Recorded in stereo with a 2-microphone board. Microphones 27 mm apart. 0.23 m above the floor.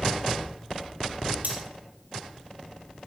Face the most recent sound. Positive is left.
turn(degrees=-80)